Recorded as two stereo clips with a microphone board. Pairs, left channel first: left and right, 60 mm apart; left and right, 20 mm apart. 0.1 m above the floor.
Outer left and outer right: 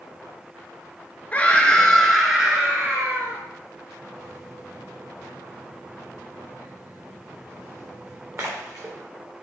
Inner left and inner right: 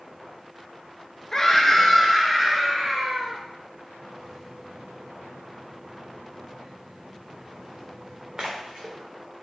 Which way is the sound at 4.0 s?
45° right (ahead or behind).